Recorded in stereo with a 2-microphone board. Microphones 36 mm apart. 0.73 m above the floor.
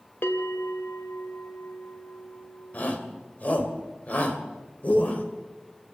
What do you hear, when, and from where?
0.2 s a bell: 80° left, 2 m
2.7 s a shout: 45° left (ahead or behind), 3 m